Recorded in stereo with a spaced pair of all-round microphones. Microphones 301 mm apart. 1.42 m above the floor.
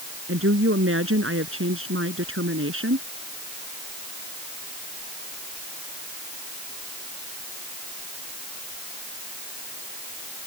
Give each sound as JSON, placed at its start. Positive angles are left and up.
{"t": 0.3, "sound": "a woman speaking", "side_deg": -45}